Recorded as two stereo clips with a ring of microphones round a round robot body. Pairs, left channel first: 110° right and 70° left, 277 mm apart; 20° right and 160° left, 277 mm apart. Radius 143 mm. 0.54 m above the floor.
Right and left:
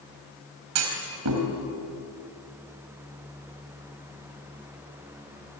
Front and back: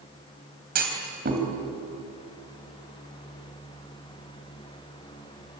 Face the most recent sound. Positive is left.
turn(degrees=100)